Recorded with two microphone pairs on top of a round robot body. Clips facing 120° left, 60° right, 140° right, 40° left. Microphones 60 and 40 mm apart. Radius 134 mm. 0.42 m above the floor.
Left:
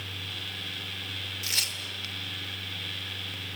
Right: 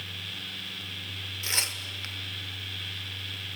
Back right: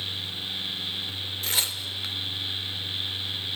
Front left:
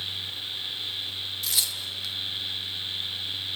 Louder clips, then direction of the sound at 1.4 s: Right 3 dB, back right 2 dB; 110° right.